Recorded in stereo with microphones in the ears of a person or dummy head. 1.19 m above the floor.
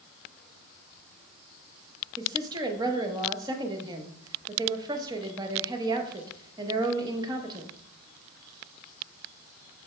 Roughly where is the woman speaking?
Right.